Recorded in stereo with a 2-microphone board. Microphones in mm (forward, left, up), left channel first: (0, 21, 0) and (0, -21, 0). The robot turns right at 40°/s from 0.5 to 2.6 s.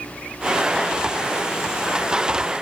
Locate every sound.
Only background noise.